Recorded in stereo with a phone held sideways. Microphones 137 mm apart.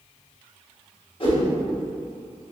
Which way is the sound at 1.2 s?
40° left (ahead or behind).